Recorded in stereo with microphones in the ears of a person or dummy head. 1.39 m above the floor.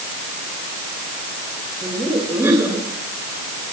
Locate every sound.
1.8 s laughter: 10° right (ahead or behind), 7.5 m